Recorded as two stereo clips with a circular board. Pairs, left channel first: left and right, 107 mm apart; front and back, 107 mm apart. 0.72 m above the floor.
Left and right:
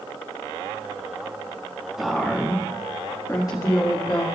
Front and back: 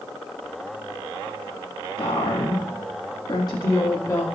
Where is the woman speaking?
5° right, 1.6 m; by 4.2 s 55° left, 2 m.